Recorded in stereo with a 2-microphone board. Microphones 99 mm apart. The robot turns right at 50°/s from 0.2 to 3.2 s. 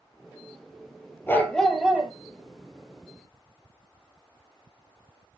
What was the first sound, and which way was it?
A dog barking, 155° left.